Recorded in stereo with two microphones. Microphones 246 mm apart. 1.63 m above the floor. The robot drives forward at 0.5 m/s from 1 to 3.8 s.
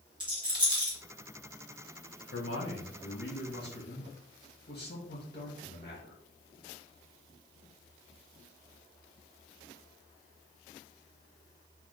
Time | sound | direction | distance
0.2 | a rattle | 20° right (ahead or behind) | 2.0 m
2.3 | a man speaking | 65° left (ahead or behind) | 1.2 m